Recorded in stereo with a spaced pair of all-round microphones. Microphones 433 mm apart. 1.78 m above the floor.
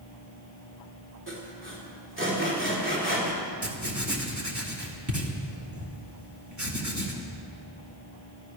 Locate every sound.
1.3 s sawing: 25° right (ahead or behind), 3.5 m
3.6 s writing: 40° right (ahead or behind), 1.8 m